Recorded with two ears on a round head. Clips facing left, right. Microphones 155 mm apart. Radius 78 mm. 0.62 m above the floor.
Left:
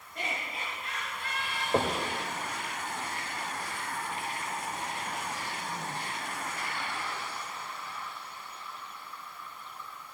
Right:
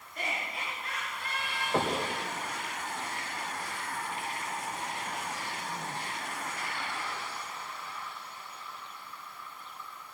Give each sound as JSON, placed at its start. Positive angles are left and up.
{"t": 0.1, "sound": "laughter", "side_deg": 30, "distance_m": 8.0}
{"t": 1.7, "sound": "knocking", "side_deg": 15, "distance_m": 2.5}